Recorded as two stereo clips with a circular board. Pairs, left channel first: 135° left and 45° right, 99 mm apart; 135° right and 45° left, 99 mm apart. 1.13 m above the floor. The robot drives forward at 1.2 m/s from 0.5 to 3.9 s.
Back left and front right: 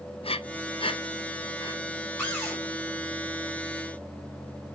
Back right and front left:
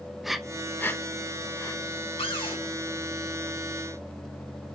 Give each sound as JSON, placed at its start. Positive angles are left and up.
{"t": 0.2, "sound": "breathing", "azimuth_deg": 135, "distance_m": 0.5}
{"t": 2.2, "sound": "a cupboard door", "azimuth_deg": -155, "distance_m": 5.5}